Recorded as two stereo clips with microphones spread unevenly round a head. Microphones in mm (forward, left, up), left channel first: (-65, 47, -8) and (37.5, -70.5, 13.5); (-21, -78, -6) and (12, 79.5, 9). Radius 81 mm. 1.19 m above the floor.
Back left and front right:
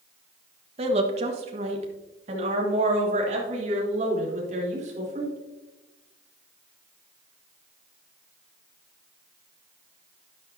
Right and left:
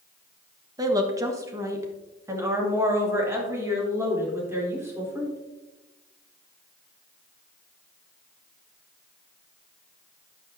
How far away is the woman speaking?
About 1.4 m.